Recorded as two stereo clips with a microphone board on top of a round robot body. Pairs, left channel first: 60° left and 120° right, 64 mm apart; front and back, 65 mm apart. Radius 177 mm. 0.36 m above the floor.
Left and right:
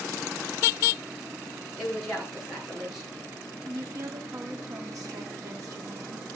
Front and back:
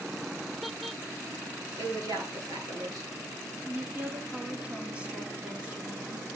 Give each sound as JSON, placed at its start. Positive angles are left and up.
{"t": 1.8, "sound": "a woman speaking", "azimuth_deg": 150, "distance_m": 8.0}
{"t": 3.6, "sound": "a woman speaking", "azimuth_deg": -115, "distance_m": 2.0}